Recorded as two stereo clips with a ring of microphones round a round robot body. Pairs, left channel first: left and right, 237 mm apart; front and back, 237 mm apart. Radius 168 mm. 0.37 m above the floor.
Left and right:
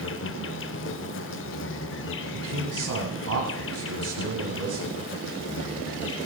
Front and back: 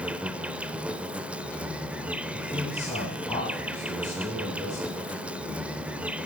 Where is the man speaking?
85° right, 2.5 m.